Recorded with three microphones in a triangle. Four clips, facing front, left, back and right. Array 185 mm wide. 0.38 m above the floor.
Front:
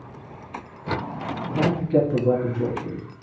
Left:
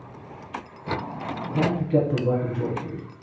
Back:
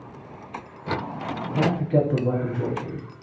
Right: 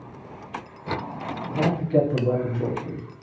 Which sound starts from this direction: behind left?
A man speaking, at 1.6 s.